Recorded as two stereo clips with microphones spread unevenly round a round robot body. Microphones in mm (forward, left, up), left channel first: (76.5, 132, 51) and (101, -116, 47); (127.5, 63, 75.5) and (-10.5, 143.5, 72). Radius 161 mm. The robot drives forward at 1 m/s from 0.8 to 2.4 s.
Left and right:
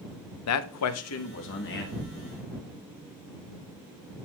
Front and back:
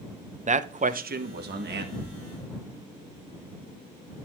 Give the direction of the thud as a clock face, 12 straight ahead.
2 o'clock.